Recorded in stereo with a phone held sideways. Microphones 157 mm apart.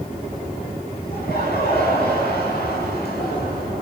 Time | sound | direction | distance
1.1 | laughter | 85° left | 8.5 m